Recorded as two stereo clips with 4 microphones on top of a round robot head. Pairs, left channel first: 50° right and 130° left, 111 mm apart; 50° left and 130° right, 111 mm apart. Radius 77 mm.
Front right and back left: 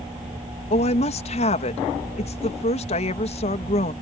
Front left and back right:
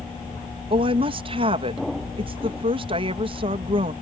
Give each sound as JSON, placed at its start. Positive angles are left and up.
{"t": 0.7, "sound": "a woman speaking", "azimuth_deg": -85}